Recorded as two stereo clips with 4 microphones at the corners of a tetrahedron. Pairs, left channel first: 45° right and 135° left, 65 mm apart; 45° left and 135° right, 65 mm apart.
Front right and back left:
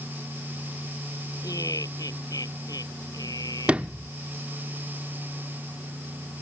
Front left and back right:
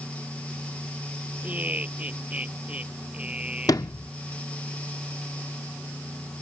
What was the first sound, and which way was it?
Laughter, 70° right.